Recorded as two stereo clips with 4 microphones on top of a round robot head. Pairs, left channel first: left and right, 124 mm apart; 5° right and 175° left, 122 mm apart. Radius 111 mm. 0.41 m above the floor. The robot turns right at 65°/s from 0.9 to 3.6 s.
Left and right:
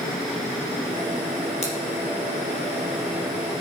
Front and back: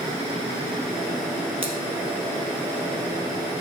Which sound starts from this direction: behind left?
Scissors, at 1.6 s.